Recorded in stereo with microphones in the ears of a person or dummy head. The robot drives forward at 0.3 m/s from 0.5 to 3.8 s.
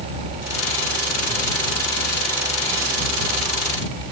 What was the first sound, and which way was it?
Only background noise.